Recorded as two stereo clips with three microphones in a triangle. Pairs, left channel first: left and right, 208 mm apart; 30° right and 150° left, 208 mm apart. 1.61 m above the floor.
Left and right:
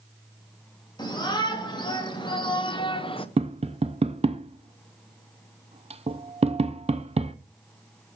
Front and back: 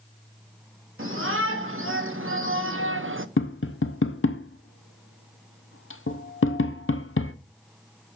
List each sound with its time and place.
1.0 s a shout: 160° left, 2.5 m; by 3.3 s 150° left, 0.8 m
3.4 s tapping: 30° right, 0.8 m